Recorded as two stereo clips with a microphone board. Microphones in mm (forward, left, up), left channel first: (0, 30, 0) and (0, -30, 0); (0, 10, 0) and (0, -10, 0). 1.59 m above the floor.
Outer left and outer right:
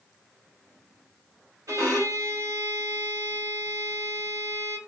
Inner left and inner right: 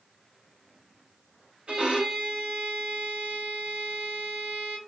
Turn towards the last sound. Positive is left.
turn(degrees=-70)  # may be behind; listen again after turning